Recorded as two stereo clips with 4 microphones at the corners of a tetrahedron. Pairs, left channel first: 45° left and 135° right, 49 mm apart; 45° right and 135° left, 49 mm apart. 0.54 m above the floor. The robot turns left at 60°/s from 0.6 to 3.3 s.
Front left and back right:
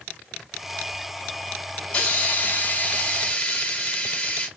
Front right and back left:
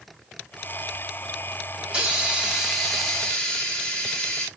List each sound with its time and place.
1.8 s a hiss: 100° left, 1.1 m; by 4.5 s 10° left, 1.1 m